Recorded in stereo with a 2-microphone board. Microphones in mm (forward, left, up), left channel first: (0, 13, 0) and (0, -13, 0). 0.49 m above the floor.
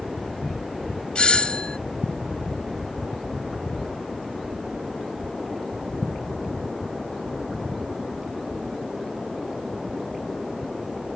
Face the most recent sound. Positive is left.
turn(degrees=45)  # may be behind; listen again after turning